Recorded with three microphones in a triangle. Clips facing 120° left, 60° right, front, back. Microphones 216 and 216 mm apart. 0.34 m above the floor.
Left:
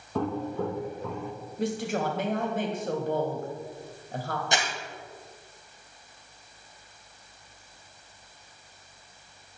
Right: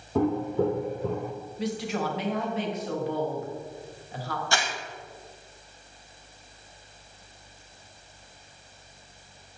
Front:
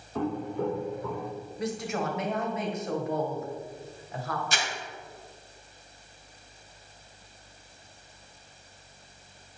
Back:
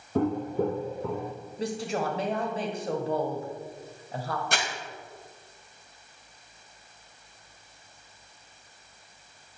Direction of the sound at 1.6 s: 130° left.